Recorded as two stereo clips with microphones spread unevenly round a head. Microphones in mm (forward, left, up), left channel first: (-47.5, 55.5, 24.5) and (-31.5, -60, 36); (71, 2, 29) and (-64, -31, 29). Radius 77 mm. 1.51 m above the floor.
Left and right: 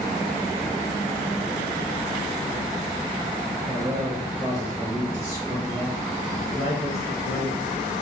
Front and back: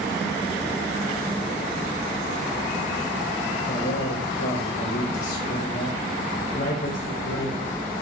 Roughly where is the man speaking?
Ahead.